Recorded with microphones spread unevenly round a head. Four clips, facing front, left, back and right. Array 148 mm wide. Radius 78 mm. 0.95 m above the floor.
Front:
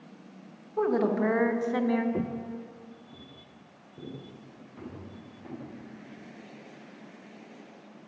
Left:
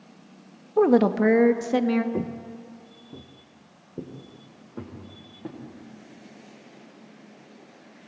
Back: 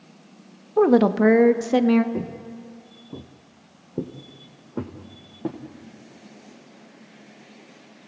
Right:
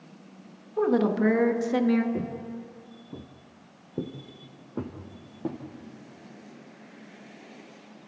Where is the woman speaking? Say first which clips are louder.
Left 5 dB, back 9 dB; 135° left, 1.2 m; by 2.0 s 165° left, 1.6 m.